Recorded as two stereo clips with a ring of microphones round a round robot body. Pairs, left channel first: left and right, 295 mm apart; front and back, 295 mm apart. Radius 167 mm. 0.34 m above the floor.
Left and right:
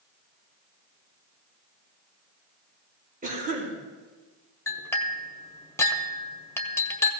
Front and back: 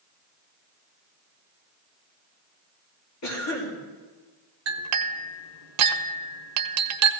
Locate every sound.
3.2 s a cough: 30° right, 5 m
4.7 s a clink: 170° left, 0.8 m